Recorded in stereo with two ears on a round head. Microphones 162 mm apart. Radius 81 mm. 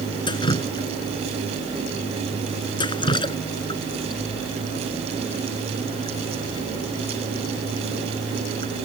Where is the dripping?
25° left (ahead or behind).